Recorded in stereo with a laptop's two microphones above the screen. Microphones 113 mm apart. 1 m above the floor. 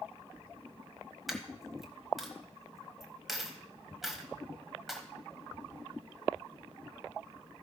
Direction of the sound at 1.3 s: Centre (ahead or behind).